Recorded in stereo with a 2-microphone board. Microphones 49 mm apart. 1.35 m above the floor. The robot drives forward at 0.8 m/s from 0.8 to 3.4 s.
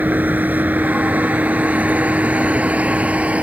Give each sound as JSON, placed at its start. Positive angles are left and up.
{"t": 0.0, "sound": "a vehicle", "side_deg": -35}